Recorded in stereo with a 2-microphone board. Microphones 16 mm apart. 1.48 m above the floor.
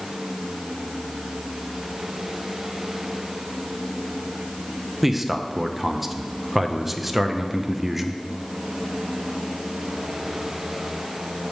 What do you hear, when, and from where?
5.0 s a man speaking: 15° right (ahead or behind), 0.6 m